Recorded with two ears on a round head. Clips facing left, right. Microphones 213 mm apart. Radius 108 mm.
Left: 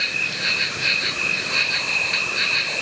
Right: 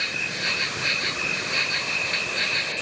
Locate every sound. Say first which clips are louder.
0.0 s an insect: even; 5° left (ahead or behind)